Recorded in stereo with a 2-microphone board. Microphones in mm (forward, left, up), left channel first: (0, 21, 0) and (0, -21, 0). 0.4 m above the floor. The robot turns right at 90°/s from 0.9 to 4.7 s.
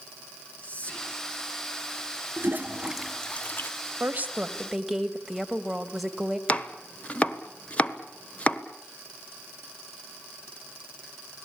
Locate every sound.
0.6 s whispering: 35° left (ahead or behind), 4 m; by 1.2 s 5° left (ahead or behind), 4 m
2.4 s a toilet flushing: 65° right (ahead or behind), 0.6 m; by 3.7 s 55° left (ahead or behind), 0.6 m
4.0 s a woman speaking: 70° right, 2 m; by 6.4 s 5° right, 2 m
6.5 s chopping: 25° left (ahead or behind), 1.4 m